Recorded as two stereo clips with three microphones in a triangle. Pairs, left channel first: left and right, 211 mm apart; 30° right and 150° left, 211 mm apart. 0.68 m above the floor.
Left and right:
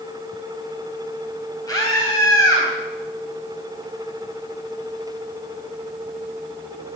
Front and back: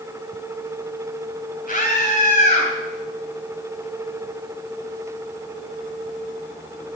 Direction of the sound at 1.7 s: 15° left.